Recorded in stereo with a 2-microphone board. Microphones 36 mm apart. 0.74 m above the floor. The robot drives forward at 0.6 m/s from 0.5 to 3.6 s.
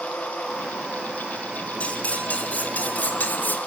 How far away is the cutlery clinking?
About 2.5 m.